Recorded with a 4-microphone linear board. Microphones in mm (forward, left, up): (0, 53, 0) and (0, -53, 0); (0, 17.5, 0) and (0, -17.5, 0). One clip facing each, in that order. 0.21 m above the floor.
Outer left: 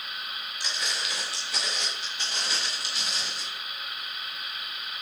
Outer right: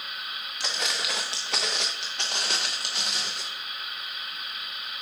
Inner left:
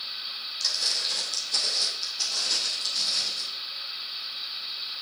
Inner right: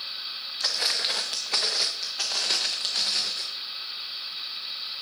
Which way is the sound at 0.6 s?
70° right (ahead or behind).